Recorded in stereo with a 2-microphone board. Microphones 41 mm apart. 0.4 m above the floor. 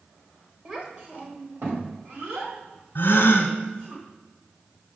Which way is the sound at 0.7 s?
35° right (ahead or behind).